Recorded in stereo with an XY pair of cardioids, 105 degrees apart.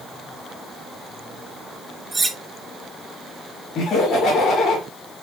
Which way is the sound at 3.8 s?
65° left.